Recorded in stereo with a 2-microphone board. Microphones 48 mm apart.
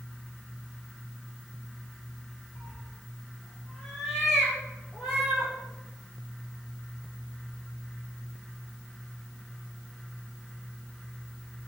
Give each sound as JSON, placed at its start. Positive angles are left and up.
{"t": 2.5, "sound": "a cat meowing", "side_deg": 25, "distance_m": 1.2}